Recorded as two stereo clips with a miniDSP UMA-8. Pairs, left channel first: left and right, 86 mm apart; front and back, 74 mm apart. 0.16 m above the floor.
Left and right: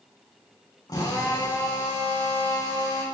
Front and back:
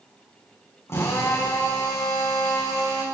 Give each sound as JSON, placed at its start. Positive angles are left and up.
{"t": 0.9, "sound": "a drill", "azimuth_deg": 50, "distance_m": 6.0}